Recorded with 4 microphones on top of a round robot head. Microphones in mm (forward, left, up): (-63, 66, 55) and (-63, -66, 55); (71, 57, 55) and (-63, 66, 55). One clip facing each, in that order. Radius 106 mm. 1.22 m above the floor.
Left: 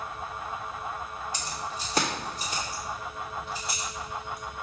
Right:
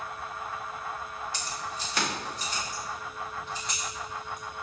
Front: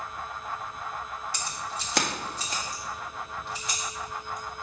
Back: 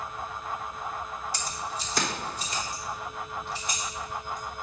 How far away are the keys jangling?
About 1.3 m.